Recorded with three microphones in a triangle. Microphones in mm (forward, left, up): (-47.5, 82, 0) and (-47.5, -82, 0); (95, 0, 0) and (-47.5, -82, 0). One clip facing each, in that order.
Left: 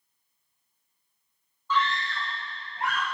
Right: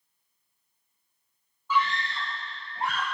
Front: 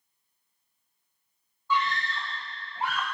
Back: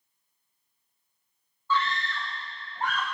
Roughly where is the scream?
Ahead.